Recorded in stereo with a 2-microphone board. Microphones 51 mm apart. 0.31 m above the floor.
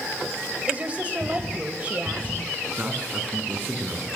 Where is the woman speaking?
25° right (ahead or behind), 1.1 m.